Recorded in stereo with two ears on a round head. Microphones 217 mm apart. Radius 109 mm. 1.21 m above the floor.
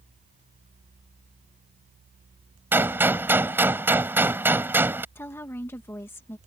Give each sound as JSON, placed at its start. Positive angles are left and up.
{"t": 2.7, "sound": "a gunshot", "side_deg": -10}
{"t": 5.2, "sound": "a woman speaking", "side_deg": 10}